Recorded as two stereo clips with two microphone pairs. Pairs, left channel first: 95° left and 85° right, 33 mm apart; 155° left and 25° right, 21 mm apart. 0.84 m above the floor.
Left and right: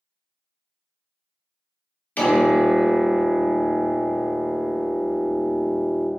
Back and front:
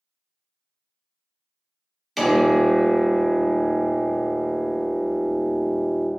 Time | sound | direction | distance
2.2 | a piano | 70° left | 1.0 m